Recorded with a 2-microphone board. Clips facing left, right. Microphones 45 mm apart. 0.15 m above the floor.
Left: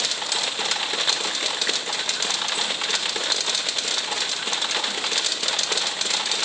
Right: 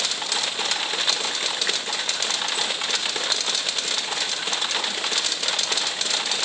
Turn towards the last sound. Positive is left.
No sound to turn to.